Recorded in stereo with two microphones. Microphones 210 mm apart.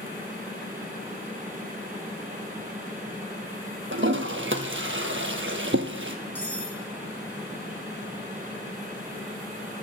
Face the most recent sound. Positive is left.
turn(degrees=-60)  # may be behind; listen again after turning